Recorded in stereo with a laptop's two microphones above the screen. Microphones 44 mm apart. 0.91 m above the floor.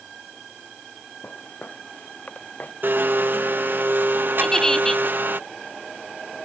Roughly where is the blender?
Right.